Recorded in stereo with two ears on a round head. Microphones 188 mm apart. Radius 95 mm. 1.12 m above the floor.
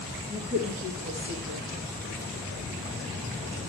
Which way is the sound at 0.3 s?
25° right (ahead or behind).